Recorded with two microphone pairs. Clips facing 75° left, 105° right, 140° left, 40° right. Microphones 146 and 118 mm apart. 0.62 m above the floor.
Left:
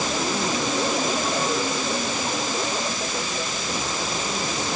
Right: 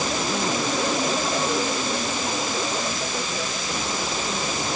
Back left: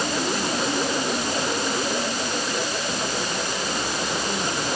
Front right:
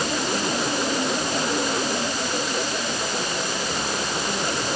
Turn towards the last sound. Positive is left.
No sound to turn to.